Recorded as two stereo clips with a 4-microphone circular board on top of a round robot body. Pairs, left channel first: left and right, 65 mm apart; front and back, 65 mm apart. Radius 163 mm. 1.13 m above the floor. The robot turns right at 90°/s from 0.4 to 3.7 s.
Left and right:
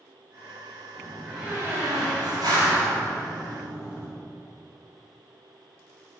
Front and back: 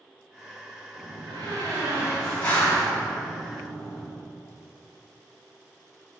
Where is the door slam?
150° left, 1.7 m; by 4.1 s 40° left, 1.7 m.